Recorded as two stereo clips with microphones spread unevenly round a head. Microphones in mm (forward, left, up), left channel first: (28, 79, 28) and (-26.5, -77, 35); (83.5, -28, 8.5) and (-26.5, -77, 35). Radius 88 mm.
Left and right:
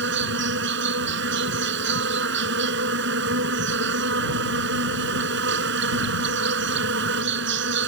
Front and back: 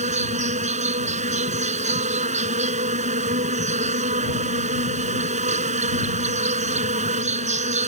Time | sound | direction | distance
0.0 | an insect | 130° right | ?